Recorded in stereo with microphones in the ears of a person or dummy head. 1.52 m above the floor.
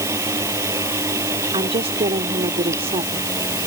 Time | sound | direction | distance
0.0 | a fan | 15° right (ahead or behind) | ?
1.5 | a woman speaking | 25° right (ahead or behind) | ?